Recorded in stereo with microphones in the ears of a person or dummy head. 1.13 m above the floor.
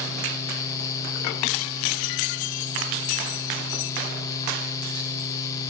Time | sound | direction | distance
0.0 | a fan | 20° left (ahead or behind) | 0.9 m